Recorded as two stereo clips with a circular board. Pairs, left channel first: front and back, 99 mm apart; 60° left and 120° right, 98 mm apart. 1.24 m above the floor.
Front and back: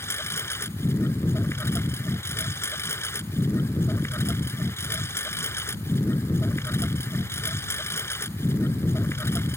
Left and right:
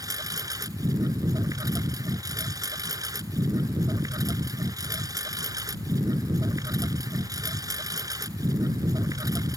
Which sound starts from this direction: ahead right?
A lawn mower, at 0.0 s.